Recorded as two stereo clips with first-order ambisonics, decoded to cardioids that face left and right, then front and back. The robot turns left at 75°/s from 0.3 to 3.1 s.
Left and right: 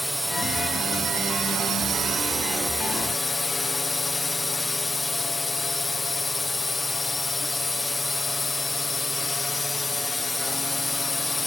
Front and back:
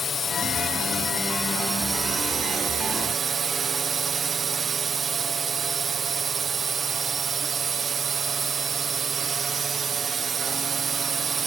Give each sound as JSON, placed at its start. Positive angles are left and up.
{"t": 0.0, "sound": "a drone", "azimuth_deg": 0}